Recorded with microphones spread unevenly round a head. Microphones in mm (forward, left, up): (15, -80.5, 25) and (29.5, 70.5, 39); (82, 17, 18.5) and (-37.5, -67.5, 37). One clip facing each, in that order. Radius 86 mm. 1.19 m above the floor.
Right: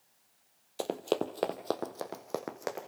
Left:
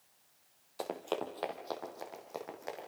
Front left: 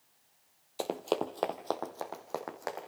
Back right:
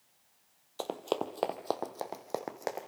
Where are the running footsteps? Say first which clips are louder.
Right 6 dB, front left 2 dB; 45° right, 1.5 m; by 2.9 s 85° right, 3 m.